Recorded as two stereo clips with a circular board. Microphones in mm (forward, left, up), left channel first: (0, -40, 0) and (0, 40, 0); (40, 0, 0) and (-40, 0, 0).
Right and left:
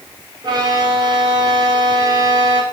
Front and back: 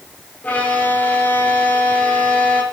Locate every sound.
0.4 s a violin: 70° left, 2.5 m